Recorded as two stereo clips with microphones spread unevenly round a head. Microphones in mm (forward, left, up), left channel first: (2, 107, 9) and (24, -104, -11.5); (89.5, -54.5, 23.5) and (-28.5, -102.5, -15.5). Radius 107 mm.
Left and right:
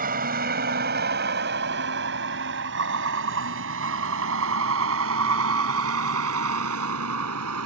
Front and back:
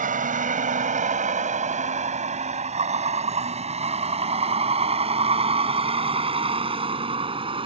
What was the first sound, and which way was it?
A vehicle, 135° right.